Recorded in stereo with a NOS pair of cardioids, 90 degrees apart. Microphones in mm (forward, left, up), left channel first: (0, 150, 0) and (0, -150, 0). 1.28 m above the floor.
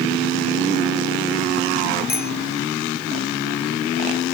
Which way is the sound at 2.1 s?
30° left.